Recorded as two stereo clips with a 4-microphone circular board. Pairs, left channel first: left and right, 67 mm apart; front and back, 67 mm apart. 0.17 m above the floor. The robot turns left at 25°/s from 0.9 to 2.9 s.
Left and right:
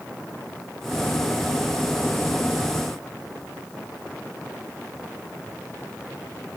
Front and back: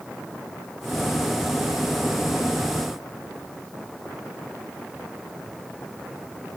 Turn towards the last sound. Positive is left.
No sound to turn to.